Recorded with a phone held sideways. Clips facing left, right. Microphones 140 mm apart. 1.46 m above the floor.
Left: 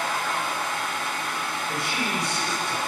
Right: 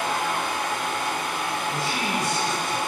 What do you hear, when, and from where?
0.0 s a fan: 75° right (ahead or behind), 4.5 m
1.7 s a man speaking: 85° left, 6.5 m